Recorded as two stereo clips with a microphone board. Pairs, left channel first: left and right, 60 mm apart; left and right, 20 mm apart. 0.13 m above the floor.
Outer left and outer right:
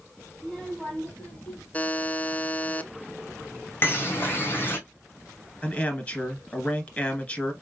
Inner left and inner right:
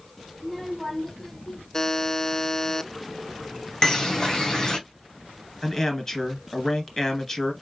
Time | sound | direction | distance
0.4 | a child speaking | 20° left (ahead or behind) | 3 m
1.7 | a buzzer | 25° left (ahead or behind) | 0.5 m
3.8 | a bird | 40° left (ahead or behind) | 1.2 m
5.6 | a man speaking | 25° left (ahead or behind) | 1.8 m